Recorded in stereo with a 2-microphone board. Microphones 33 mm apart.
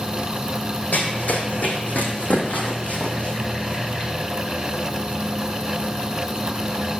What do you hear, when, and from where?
0.9 s running footsteps: 65° left (ahead or behind), 2.5 m; by 4.1 s 35° left (ahead or behind), 3 m